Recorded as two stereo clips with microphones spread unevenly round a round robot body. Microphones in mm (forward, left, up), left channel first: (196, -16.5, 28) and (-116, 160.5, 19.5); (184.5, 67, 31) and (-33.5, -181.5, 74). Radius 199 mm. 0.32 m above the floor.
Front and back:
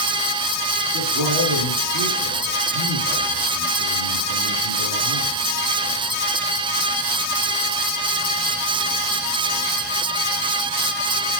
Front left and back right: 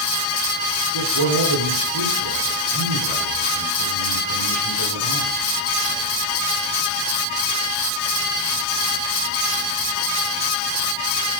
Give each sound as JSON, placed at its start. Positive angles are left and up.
{"t": 0.9, "sound": "a man speaking", "azimuth_deg": -175, "distance_m": 4.5}